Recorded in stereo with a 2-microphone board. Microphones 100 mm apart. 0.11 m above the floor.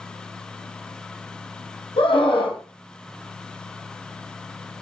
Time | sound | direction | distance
2.0 | a scream | 60° left (ahead or behind) | 3.5 m